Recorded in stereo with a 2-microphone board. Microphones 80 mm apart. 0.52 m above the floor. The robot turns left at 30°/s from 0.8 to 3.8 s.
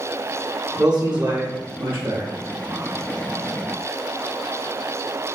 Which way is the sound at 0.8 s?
15° right.